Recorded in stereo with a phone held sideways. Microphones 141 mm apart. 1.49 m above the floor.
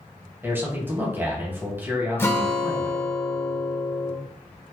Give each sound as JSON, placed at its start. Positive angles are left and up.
{"t": 0.4, "sound": "a man speaking", "side_deg": -15, "distance_m": 1.1}
{"t": 2.2, "sound": "a guitar", "side_deg": 20, "distance_m": 0.7}